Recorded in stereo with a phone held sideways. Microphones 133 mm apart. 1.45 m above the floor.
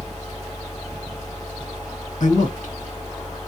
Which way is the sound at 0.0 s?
35° left (ahead or behind).